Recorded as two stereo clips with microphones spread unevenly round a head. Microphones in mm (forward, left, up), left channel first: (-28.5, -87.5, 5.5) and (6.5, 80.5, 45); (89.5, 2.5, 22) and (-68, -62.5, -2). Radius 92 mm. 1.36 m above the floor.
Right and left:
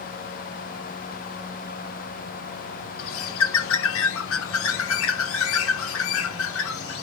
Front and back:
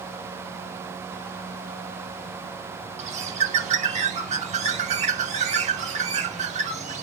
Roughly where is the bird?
Right.